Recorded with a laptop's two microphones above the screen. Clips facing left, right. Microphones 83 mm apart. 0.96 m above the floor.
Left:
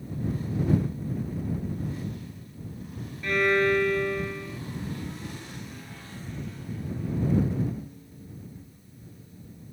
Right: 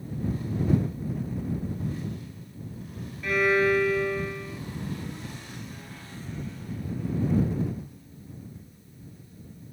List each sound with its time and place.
3.2 s a violin: 5° right (ahead or behind)